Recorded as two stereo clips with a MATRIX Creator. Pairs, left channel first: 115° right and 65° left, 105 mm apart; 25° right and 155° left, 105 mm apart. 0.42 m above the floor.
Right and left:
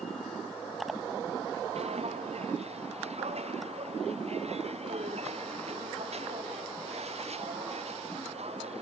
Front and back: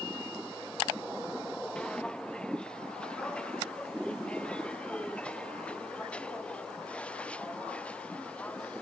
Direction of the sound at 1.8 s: 60° left.